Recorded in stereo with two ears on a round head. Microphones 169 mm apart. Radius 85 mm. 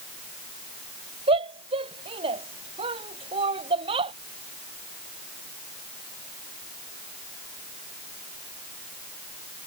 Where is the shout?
30° right (ahead or behind).